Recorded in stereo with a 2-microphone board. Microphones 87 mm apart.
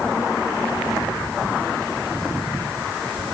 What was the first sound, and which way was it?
Only background noise.